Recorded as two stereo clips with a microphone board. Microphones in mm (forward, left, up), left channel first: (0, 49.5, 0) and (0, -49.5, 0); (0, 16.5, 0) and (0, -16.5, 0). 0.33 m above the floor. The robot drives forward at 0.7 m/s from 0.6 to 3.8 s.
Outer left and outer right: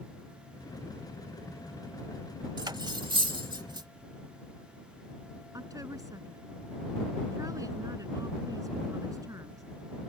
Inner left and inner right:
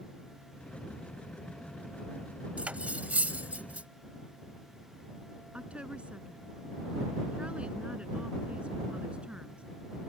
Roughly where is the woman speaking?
Right.